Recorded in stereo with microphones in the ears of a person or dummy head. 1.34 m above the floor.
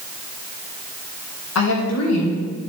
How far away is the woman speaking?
About 1.8 m.